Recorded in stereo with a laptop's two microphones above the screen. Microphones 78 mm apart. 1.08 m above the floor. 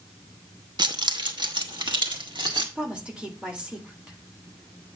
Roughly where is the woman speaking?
Centre.